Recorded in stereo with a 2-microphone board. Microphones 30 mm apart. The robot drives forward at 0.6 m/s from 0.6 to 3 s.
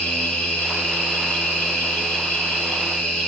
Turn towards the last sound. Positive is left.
turn(degrees=70)  # may be behind; listen again after turning